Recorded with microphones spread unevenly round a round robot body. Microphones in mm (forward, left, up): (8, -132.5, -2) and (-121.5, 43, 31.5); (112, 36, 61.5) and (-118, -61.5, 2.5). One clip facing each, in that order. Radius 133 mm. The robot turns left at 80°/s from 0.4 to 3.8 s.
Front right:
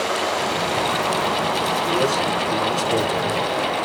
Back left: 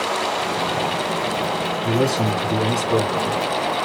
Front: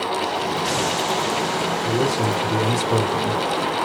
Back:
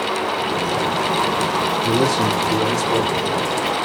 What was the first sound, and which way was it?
A man speaking, 160° left.